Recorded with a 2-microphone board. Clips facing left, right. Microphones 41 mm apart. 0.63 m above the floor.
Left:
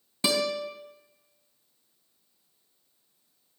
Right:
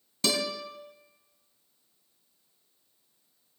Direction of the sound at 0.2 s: 20° left (ahead or behind).